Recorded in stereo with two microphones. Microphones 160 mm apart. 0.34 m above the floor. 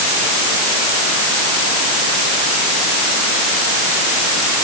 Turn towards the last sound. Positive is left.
No sound to turn to.